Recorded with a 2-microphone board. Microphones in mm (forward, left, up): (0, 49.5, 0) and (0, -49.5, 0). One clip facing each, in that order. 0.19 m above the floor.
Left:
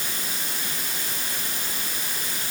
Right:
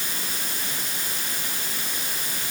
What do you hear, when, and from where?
Only background noise.